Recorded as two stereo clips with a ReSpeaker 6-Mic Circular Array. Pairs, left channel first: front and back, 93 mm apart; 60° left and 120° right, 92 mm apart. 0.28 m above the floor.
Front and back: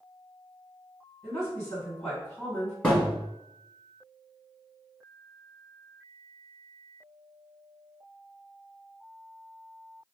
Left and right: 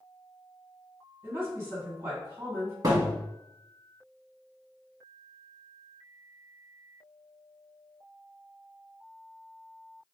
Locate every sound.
1.2 s a woman speaking: 80° right, 1.9 m
2.8 s a thud: 75° right, 1.3 m